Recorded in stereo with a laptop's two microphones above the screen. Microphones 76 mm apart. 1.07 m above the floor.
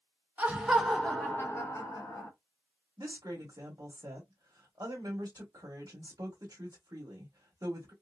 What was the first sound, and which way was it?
Laughter, 20° right (ahead or behind).